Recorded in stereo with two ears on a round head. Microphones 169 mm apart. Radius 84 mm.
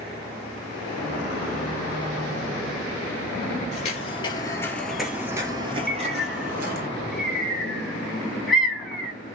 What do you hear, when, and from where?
3.7 s footsteps: 40° left (ahead or behind), 1.2 m; by 6.9 s 50° right (ahead or behind), 1.5 m
5.9 s a bird: centre (ahead or behind), 0.7 m